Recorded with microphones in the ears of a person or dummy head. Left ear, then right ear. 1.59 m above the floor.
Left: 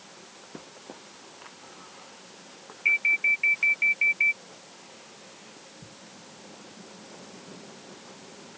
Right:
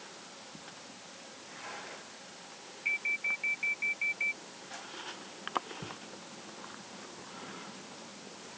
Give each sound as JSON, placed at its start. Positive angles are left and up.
{"t": 2.9, "sound": "an alarm", "side_deg": 75}